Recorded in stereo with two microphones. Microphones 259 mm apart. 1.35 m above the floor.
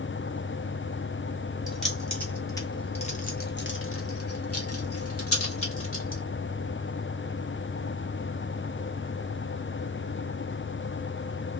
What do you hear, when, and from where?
1.7 s keys jangling: centre (ahead or behind), 1.6 m; by 6.2 s 50° left (ahead or behind), 1.8 m